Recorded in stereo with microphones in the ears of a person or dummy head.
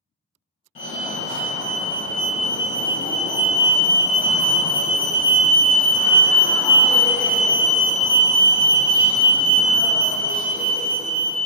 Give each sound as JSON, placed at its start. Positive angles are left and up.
{"t": 0.8, "sound": "a fire alarm", "side_deg": 30, "distance_m": 1.0}